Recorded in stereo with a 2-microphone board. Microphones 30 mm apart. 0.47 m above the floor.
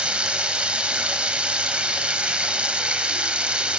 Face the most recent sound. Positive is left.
turn(degrees=-40)  # may be behind; listen again after turning